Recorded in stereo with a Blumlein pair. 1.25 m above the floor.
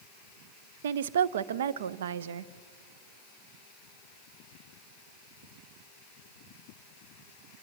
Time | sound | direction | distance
0.8 | a woman speaking | 60° right | 0.6 m